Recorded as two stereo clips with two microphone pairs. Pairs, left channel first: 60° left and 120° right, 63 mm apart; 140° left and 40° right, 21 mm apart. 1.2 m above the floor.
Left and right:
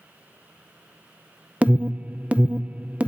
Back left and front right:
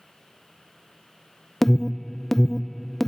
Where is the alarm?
165° right, 0.6 m.